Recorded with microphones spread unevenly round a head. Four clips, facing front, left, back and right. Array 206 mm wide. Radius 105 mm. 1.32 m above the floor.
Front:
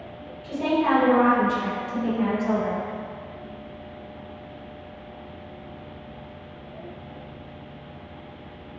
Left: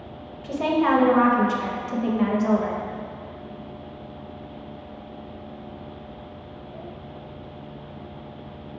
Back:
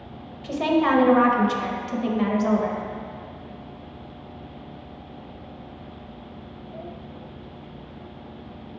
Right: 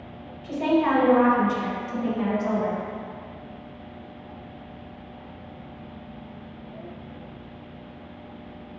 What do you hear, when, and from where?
0.4 s a woman speaking: 120° left, 0.7 m